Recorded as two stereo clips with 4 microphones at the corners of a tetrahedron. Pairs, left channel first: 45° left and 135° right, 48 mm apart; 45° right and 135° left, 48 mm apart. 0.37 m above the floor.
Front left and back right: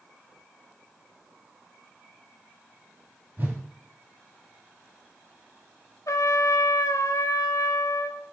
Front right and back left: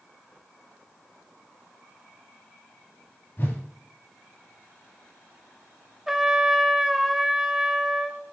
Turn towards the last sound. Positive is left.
turn(degrees=50)